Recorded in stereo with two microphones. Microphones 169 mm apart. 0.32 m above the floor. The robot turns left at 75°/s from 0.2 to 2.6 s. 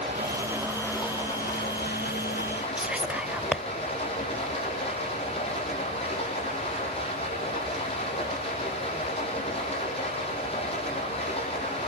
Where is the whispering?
5° right (ahead or behind), 1.1 m.